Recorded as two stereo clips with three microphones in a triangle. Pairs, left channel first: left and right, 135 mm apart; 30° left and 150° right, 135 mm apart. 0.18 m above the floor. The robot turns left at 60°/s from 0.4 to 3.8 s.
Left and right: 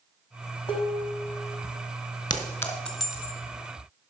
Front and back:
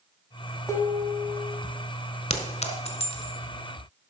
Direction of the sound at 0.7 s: 90° left.